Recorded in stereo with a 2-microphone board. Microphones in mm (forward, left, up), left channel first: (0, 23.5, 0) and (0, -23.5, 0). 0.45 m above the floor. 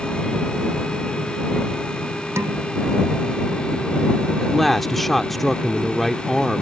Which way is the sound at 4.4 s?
5° left (ahead or behind).